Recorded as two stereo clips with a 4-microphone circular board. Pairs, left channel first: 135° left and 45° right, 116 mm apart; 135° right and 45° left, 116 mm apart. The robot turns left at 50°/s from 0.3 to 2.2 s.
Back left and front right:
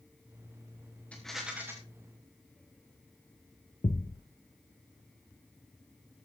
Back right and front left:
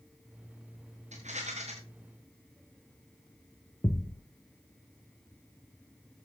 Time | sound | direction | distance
1.1 | a rattle | 55° left | 4.5 m
3.8 | a thud | 160° left | 1.5 m